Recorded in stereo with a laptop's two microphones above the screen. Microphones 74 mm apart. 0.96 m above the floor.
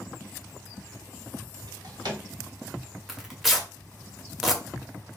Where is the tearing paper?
5° right (ahead or behind), 0.5 m.